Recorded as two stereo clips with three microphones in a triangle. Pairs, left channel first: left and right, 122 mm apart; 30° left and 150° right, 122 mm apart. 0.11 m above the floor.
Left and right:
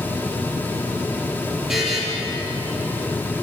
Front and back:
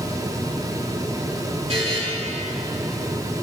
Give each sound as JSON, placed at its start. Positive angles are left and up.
{"t": 1.7, "sound": "a buzzer", "azimuth_deg": -175, "distance_m": 4.0}